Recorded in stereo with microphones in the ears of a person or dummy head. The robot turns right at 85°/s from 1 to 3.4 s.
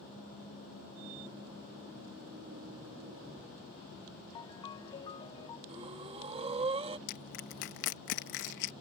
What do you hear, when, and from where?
4.3 s a ringtone: 25° left (ahead or behind)
5.7 s breathing: 30° right (ahead or behind)
7.1 s crushing: 65° left (ahead or behind)